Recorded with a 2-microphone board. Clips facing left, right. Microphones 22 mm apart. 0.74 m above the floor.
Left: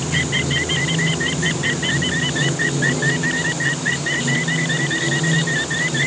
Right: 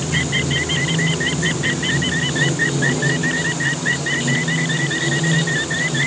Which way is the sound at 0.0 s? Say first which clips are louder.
Even; centre (ahead or behind).